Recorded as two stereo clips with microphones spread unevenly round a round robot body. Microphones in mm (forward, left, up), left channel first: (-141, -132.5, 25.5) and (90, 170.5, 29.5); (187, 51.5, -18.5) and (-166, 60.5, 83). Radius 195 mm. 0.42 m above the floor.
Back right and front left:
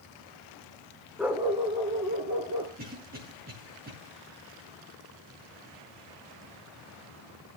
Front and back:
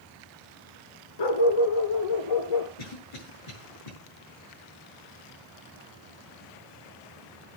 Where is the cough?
15° right, 6.5 m.